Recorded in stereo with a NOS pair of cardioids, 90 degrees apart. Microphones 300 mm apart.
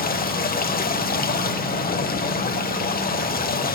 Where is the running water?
30° left, 1.1 m.